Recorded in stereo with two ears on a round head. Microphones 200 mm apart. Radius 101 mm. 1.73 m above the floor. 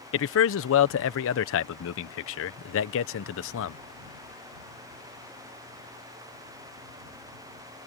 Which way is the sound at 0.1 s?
70° left (ahead or behind).